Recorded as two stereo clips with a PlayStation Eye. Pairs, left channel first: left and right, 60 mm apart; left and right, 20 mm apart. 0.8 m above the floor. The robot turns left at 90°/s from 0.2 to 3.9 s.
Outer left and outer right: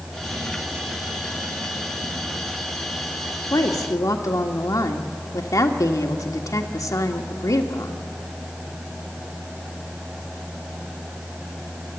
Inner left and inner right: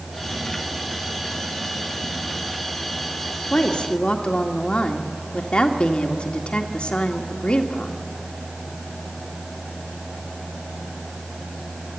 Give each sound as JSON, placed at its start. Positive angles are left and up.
{"t": 3.5, "sound": "a woman speaking", "azimuth_deg": 115, "distance_m": 1.8}